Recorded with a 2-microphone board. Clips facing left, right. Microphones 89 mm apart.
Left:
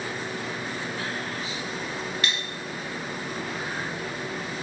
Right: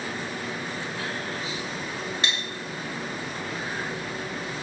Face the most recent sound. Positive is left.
turn(degrees=-25)  # may be behind; listen again after turning